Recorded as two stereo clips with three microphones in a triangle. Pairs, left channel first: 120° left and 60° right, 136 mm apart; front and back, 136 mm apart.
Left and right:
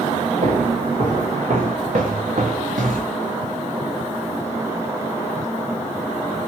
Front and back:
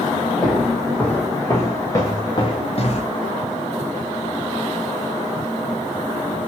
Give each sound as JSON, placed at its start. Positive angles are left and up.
{"t": 0.4, "sound": "footsteps", "azimuth_deg": -85, "distance_m": 3.0}